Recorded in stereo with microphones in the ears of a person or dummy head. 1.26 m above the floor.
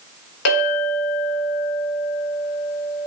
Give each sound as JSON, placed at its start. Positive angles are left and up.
{"t": 0.5, "sound": "a clink", "side_deg": 80, "distance_m": 1.1}